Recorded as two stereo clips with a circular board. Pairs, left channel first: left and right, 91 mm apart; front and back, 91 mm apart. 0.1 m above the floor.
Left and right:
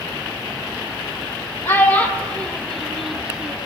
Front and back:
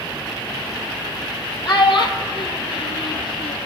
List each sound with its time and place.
1.6 s a child speaking: 25° left, 2 m; by 3.6 s 15° right, 2.5 m